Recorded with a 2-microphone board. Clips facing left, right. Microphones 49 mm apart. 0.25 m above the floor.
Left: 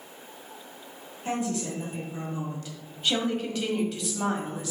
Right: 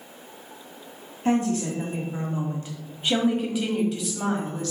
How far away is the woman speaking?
About 1.5 m.